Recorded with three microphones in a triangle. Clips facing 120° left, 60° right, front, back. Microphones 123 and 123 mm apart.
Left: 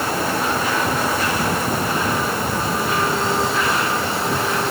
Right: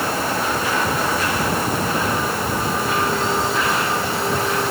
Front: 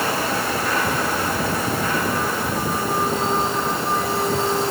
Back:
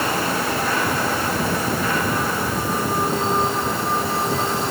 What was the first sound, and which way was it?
Only background noise.